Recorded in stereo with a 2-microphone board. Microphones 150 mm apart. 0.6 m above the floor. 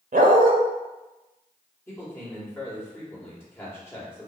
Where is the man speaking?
15° left (ahead or behind), 1.7 m.